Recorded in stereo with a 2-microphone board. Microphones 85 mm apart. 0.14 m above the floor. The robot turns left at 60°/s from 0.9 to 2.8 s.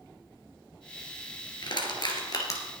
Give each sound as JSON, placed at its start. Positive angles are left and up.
{"t": 1.6, "sound": "crushing", "side_deg": 60, "distance_m": 2.5}